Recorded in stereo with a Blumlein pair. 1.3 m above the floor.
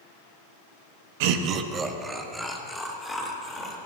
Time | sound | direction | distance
1.2 | laughter | 50° right | 1.3 m